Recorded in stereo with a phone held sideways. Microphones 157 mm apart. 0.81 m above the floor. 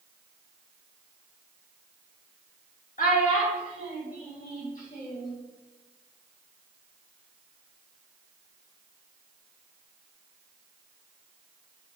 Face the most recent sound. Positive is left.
turn(degrees=55)  # may be behind; listen again after turning